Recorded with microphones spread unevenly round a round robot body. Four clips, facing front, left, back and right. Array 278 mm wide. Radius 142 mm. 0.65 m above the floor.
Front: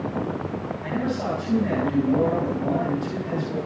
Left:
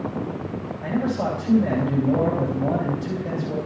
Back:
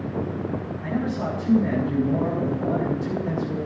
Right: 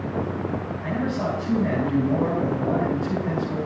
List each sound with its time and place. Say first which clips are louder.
0.8 s a man speaking: left 3 dB, even; 130° left, 6 m